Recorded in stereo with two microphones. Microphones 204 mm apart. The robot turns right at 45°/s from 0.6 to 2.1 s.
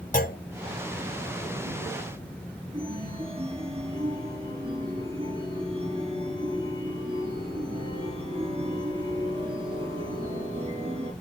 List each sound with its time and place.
0.1 s a clunk: 40° left (ahead or behind), 0.6 m
2.7 s a chime: 25° right (ahead or behind), 5 m